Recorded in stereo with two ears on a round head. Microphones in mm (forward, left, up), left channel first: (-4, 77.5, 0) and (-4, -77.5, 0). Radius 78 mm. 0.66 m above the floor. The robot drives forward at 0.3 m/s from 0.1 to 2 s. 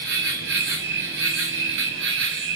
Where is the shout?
No shout in this recording.